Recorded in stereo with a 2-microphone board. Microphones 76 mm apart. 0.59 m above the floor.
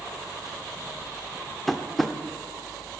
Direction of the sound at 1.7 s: Centre (ahead or behind).